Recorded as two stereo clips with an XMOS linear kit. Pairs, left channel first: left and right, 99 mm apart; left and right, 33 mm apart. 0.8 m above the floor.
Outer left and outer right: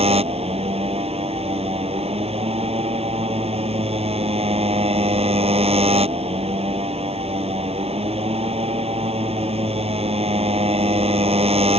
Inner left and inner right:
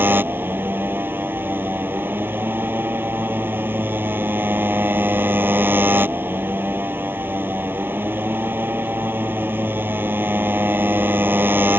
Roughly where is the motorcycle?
Right.